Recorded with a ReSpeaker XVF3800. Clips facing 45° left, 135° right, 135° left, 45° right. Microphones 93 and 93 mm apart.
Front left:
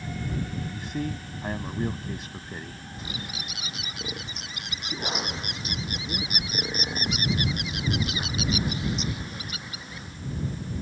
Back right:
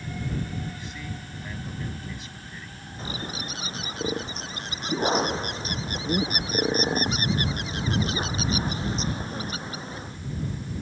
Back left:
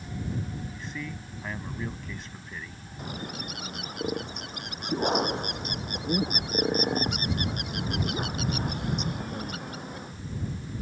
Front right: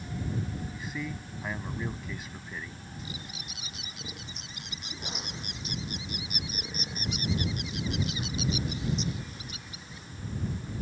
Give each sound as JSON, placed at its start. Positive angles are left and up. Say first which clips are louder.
{"t": 0.7, "sound": "a man speaking", "louder": "front left 6 dB, front right 1 dB", "azimuth_deg": 35}
{"t": 3.0, "sound": "a bird", "louder": "back right 5 dB, back left 10 dB", "azimuth_deg": 170}